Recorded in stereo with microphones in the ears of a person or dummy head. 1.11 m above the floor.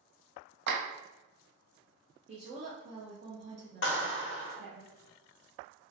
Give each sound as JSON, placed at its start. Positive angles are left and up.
{"t": 0.7, "sound": "a clap", "side_deg": -65, "distance_m": 0.8}
{"t": 2.3, "sound": "a woman speaking", "side_deg": -35, "distance_m": 0.7}
{"t": 3.8, "sound": "a clap", "side_deg": 55, "distance_m": 0.7}